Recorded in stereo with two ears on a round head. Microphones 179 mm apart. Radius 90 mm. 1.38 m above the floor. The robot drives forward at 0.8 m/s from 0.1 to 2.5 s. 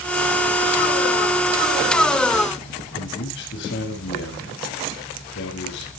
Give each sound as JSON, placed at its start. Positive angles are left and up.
{"t": 2.9, "sound": "a man speaking", "side_deg": 55, "distance_m": 8.5}